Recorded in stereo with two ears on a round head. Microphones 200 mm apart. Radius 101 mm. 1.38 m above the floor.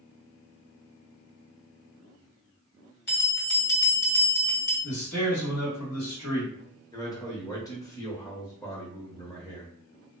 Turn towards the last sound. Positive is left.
turn(degrees=15)  # may be behind; listen again after turning